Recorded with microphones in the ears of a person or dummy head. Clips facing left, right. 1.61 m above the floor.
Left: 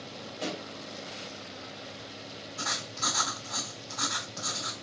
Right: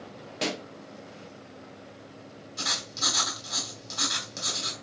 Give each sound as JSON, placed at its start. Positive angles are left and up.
{"t": 0.4, "sound": "a pop", "side_deg": -75, "distance_m": 1.2}
{"t": 2.6, "sound": "writing", "side_deg": -35, "distance_m": 3.5}